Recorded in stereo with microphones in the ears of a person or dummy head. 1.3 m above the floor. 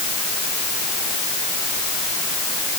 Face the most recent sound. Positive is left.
No sound to turn to.